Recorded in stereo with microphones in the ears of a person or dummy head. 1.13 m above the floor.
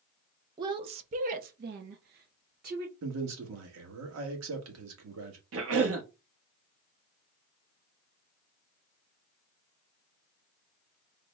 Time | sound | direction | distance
0.6 | a woman speaking | 25° right (ahead or behind) | 0.7 m
3.0 | a man speaking | 85° right | 1.3 m
5.5 | a cough | 70° right (ahead or behind) | 1.1 m